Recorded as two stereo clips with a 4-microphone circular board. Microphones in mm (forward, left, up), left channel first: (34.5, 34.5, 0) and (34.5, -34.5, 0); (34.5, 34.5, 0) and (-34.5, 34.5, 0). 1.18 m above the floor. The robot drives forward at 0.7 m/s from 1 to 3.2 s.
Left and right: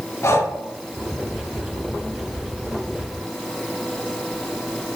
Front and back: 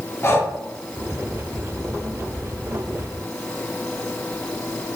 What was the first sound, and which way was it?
Breathing, 50° left.